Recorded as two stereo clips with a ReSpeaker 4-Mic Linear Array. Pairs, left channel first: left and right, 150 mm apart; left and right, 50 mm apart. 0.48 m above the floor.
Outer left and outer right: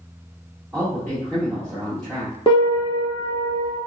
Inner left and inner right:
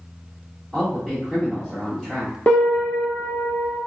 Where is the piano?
35° left (ahead or behind), 1.3 m.